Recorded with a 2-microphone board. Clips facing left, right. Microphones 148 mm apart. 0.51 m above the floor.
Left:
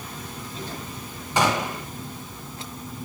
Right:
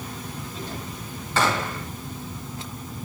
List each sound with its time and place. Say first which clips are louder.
1.4 s a gunshot: left 1 dB; 15° left (ahead or behind), 1.2 m